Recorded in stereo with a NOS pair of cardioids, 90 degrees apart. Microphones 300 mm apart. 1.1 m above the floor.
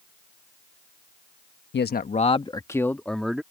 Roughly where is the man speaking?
Ahead left.